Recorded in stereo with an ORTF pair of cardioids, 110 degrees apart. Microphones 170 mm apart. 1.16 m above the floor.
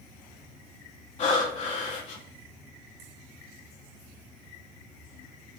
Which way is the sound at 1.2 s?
45° left.